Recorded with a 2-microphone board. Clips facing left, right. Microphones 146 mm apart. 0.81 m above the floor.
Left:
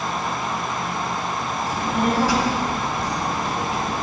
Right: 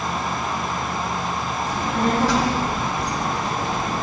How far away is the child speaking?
About 3.5 m.